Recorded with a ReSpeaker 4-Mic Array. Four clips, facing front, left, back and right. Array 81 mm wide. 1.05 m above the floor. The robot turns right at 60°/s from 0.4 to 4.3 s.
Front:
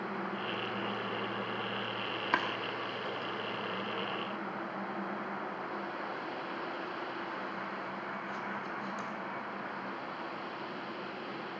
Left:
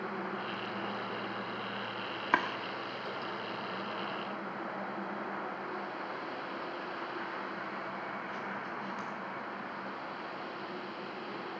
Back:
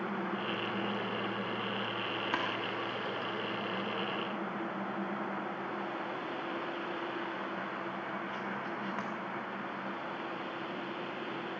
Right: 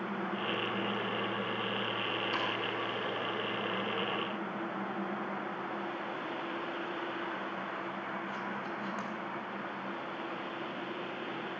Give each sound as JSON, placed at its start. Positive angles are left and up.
{"t": 2.3, "sound": "chopping", "azimuth_deg": 70, "distance_m": 1.2}